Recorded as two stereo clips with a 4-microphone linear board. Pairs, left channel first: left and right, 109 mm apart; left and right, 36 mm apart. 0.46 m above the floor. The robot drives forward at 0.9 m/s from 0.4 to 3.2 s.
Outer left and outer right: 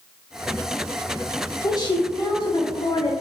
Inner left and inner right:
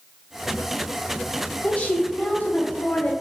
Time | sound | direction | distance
1.6 | a woman speaking | 40° left (ahead or behind) | 2 m